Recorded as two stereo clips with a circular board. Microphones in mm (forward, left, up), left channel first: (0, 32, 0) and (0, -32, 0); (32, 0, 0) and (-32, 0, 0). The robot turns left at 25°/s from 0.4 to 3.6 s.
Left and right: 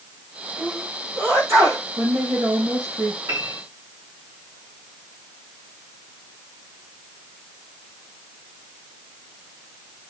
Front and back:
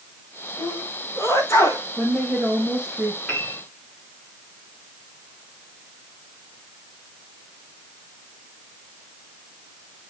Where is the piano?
75° right, 7.5 m; by 3.6 s 85° right, 7.5 m.